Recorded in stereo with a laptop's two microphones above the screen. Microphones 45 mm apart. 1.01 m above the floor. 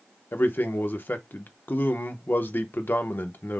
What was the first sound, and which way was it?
A man speaking, 50° left (ahead or behind).